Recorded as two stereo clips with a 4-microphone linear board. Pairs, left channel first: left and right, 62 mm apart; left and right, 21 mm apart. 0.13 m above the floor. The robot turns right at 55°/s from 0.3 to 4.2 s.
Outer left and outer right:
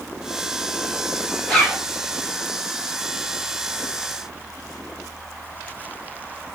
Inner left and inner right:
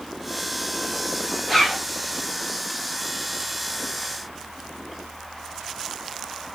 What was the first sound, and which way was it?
A zipper, 5° left (ahead or behind).